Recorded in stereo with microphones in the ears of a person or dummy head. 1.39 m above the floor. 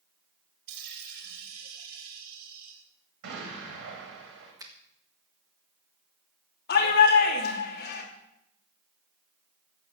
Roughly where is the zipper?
No zipper in this recording.